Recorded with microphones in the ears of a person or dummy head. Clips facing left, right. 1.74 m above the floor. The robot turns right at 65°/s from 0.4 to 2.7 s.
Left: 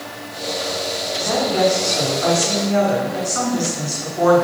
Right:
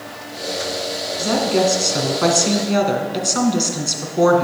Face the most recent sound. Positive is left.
turn(degrees=-50)